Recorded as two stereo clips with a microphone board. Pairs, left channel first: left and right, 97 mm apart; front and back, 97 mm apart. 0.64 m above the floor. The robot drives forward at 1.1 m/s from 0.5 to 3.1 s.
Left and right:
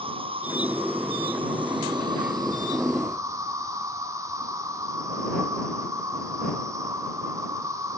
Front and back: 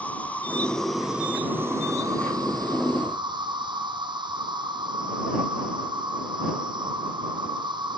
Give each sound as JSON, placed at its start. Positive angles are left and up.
{"t": 0.0, "sound": "an insect", "azimuth_deg": -75, "distance_m": 1.8}